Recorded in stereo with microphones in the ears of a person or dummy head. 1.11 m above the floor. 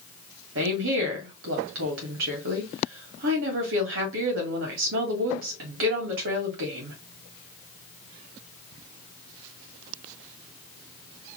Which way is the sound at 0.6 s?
65° right (ahead or behind).